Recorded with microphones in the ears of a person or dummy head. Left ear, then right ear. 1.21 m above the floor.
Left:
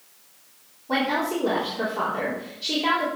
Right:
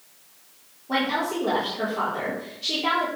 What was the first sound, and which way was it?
A woman speaking, 20° left (ahead or behind).